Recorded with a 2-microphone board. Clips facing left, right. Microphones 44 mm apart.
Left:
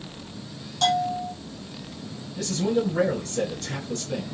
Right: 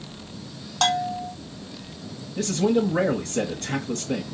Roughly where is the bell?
Right.